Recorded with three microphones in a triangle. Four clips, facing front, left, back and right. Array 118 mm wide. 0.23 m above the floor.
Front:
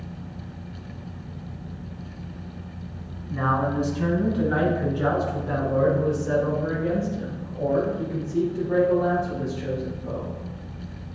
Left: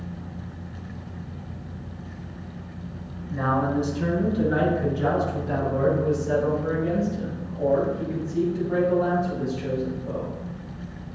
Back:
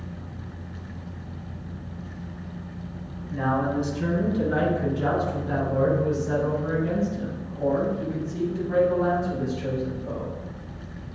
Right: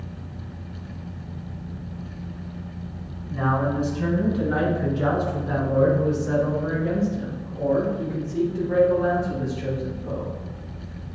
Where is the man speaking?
15° right, 2 m; by 10.4 s 65° right, 5.5 m.